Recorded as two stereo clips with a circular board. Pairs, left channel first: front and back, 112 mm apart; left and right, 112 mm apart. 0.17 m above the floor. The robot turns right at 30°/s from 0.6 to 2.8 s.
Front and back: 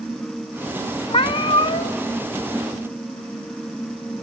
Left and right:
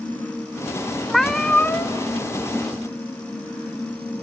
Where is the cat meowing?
Straight ahead, 0.5 m; by 2.0 s 25° left, 0.5 m.